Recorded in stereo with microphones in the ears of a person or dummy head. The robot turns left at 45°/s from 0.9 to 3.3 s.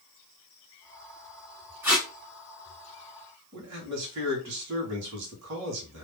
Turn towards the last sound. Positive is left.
turn(degrees=-60)  # may be behind; listen again after turning